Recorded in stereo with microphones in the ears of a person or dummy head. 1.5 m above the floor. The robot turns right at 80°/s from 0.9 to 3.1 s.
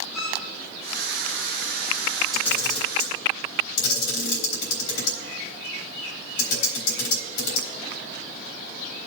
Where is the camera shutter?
5° left (ahead or behind), 3.5 m; by 7.7 s 60° left (ahead or behind), 3.5 m.